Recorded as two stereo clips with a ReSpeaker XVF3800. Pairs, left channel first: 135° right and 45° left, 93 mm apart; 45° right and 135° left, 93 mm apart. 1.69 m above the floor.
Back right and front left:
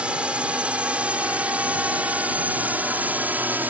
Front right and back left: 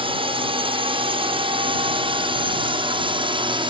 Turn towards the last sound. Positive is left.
turn(degrees=115)